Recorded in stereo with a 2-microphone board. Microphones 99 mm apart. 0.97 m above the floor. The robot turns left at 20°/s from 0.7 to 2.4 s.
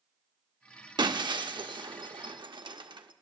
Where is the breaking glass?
50° right (ahead or behind), 0.7 m; by 3.1 s 55° right (ahead or behind), 0.7 m.